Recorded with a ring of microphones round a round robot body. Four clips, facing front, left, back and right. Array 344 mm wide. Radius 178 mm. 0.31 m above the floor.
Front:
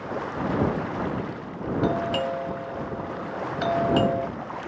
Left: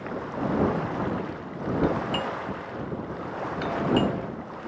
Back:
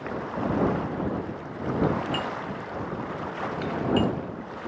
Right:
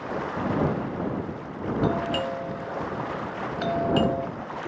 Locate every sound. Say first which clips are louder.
1.8 s a doorbell: right 2 dB, front 4 dB; 30° right